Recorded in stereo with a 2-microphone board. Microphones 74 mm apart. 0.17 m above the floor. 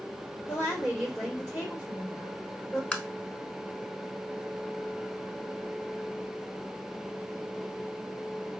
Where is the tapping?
15° left (ahead or behind), 0.5 m.